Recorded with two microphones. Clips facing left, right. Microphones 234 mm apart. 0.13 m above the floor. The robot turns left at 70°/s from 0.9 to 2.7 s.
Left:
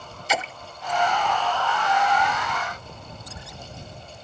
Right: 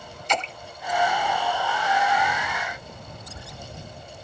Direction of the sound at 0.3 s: 5° left (ahead or behind).